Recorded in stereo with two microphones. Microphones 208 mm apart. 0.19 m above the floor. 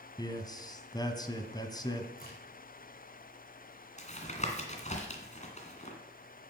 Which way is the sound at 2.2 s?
45° left (ahead or behind).